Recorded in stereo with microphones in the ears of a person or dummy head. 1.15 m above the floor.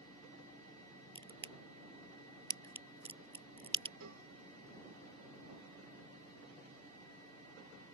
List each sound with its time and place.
1.1 s a crack: 35° right (ahead or behind)
4.0 s a cowbell: 85° right